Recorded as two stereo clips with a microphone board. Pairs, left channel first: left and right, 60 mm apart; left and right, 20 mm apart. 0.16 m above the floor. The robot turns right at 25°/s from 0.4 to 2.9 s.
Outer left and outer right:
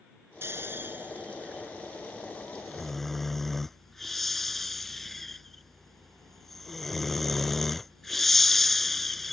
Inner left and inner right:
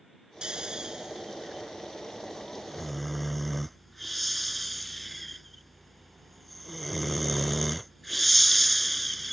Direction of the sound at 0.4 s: 45° right (ahead or behind).